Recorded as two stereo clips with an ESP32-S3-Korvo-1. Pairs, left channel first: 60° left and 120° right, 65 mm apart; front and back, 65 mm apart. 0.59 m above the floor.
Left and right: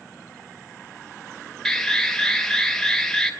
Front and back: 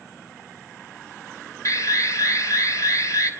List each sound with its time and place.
1.6 s an alarm: 25° right, 2.5 m